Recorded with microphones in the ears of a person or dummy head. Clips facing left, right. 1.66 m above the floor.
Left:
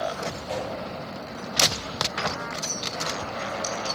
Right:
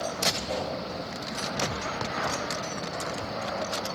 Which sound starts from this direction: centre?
A whoosh, at 0.5 s.